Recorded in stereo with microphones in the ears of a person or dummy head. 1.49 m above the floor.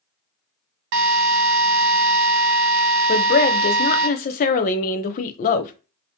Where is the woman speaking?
40° left (ahead or behind), 0.7 m.